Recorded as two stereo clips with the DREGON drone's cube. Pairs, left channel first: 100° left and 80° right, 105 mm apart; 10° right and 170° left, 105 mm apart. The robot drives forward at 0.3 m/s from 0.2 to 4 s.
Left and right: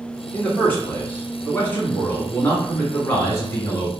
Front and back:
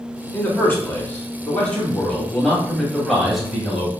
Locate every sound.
0.3 s a man speaking: 35° left, 1.9 m; by 3.9 s 105° left, 1.6 m